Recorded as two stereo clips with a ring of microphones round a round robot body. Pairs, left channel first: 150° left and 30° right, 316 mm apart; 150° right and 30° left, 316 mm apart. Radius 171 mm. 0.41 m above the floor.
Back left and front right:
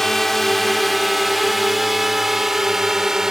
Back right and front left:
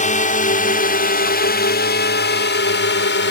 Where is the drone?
120° right.